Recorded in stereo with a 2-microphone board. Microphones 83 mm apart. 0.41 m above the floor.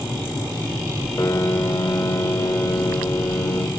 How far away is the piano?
About 0.8 m.